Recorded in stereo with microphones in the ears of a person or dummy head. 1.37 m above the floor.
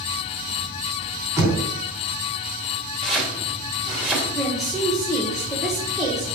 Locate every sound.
1.4 s knocking: 20° right (ahead or behind), 3.5 m
3.0 s chopping: 5° right (ahead or behind), 2.5 m
4.3 s a woman speaking: centre (ahead or behind), 1.5 m